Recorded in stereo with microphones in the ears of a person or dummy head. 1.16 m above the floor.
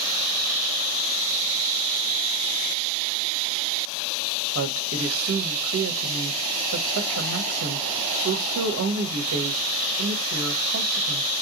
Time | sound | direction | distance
4.5 | a woman speaking | 65° right (ahead or behind) | 0.7 m